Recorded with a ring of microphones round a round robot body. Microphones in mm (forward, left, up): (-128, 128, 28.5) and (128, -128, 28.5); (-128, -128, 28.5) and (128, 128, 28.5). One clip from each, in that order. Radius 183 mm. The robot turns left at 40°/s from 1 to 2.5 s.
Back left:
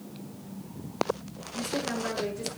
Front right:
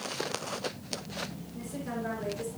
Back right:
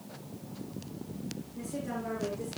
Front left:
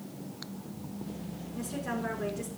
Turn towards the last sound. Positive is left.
turn(degrees=50)